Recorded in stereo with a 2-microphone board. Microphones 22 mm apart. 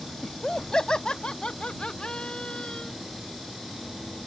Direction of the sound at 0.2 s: 30° left (ahead or behind).